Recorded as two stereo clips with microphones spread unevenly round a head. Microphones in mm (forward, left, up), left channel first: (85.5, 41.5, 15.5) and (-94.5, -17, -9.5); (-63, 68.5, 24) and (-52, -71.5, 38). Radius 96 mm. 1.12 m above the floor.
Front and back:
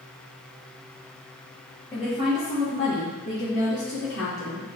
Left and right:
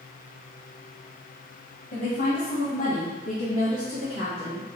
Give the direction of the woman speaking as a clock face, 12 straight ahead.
9 o'clock.